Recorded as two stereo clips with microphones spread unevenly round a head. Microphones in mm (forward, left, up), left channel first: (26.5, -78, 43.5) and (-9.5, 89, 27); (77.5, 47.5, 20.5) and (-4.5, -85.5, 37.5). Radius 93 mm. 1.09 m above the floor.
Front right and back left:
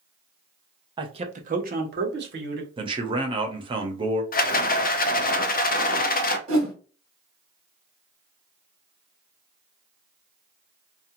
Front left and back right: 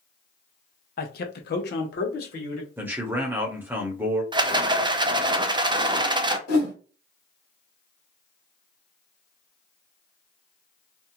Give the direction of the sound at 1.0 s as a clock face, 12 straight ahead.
11 o'clock.